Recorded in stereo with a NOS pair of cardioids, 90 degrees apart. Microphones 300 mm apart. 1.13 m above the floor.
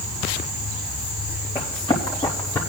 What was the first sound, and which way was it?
Running footsteps, 20° left.